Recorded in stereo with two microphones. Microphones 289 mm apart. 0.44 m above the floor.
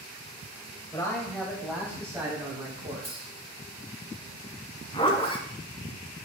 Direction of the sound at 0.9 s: 15° left (ahead or behind).